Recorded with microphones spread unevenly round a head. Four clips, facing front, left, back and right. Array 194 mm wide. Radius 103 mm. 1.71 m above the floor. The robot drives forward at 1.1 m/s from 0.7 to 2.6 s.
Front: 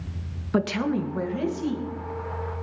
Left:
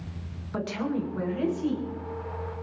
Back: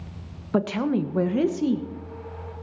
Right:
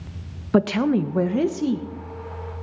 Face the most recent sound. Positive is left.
turn(degrees=-150)